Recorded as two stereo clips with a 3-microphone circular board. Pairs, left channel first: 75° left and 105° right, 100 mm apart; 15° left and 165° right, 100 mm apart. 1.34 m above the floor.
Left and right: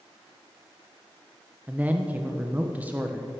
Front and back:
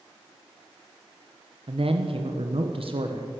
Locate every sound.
1.7 s a man speaking: 175° right, 1.1 m